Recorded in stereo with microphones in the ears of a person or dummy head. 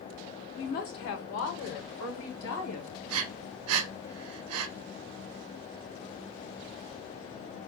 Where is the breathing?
85° right, 0.5 m.